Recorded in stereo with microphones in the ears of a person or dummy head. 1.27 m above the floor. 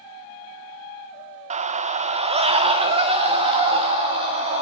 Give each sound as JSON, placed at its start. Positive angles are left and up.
{"t": 1.5, "sound": "a scream", "side_deg": -35, "distance_m": 0.5}